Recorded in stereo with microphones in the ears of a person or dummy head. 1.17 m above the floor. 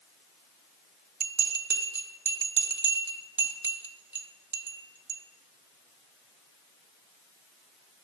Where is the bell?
15° right (ahead or behind), 0.6 m.